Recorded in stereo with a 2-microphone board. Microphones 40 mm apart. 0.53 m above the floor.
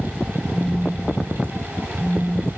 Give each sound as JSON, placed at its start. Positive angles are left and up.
{"t": 0.5, "sound": "a phone buzzing", "side_deg": -20, "distance_m": 0.6}